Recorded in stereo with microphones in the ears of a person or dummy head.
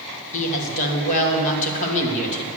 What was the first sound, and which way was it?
A woman speaking, 40° left (ahead or behind).